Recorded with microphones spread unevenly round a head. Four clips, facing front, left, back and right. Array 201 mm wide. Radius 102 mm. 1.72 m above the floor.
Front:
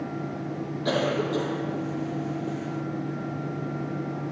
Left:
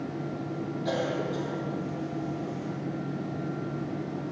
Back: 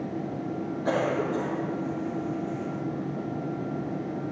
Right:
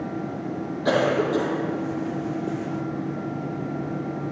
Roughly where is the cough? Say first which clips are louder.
Right 10 dB, front 1 dB; right.